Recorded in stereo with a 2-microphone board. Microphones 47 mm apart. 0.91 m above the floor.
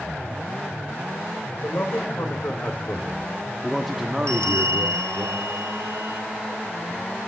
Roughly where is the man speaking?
Left.